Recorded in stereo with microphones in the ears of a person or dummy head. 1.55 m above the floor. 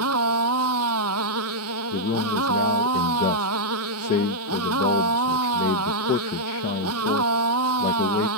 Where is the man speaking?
40° left (ahead or behind).